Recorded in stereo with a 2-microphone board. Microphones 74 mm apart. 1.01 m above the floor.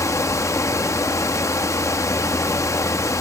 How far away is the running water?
About 0.8 m.